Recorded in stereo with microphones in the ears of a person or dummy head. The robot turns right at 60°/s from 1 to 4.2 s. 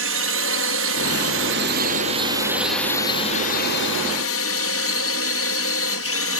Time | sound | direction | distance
0.0 | a drone | 100° right | ?